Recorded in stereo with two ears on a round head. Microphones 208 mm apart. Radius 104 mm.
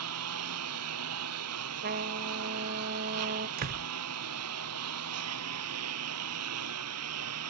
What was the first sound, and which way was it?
A lawn mower, 75° right (ahead or behind).